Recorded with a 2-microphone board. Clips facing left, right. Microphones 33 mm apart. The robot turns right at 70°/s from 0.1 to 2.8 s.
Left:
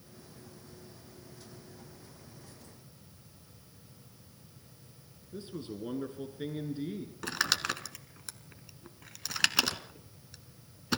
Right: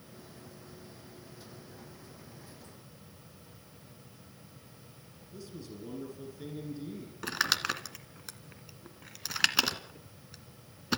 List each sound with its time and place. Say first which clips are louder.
5.3 s a man speaking: left 4 dB; 40° left (ahead or behind), 2 m
7.2 s crumpling: right 1 dB; 5° right (ahead or behind), 1.3 m